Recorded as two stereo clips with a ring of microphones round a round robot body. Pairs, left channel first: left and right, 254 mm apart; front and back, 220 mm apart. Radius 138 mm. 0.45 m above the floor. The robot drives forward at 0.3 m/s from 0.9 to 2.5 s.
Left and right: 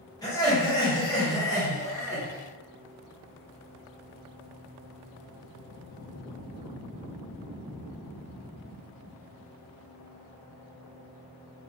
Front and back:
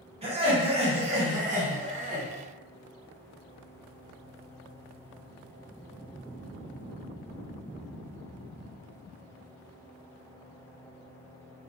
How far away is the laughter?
About 1.1 m.